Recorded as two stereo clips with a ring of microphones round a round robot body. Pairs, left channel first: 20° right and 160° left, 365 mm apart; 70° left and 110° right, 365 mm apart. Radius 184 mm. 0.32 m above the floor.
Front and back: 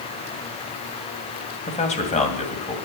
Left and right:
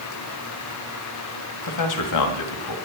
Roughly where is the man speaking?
Ahead left.